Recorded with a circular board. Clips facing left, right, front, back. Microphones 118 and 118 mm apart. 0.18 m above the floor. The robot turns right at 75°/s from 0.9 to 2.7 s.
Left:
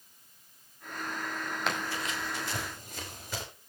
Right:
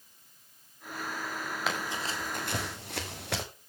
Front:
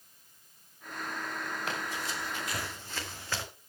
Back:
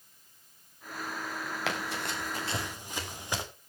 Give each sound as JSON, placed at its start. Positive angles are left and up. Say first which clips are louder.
{"t": 1.7, "sound": "running footsteps", "louder": "even, back 2 dB", "azimuth_deg": 180, "distance_m": 5.0}